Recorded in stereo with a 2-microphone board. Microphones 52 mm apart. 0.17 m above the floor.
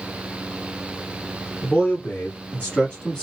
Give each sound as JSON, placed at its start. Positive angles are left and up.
{"t": 1.6, "sound": "a man speaking", "side_deg": 30, "distance_m": 1.8}